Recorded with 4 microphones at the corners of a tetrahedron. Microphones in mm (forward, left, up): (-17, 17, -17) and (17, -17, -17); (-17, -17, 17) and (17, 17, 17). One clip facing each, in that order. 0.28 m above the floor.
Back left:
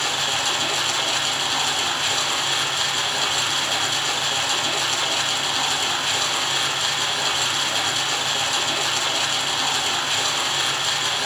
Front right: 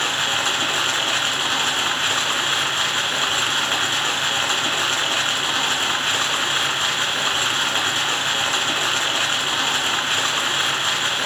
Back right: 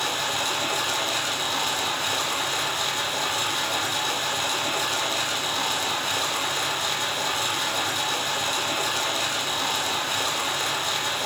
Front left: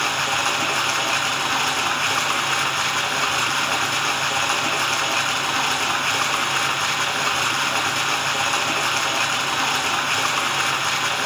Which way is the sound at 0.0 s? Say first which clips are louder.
Front right 2 dB, front left 5 dB; 10° left.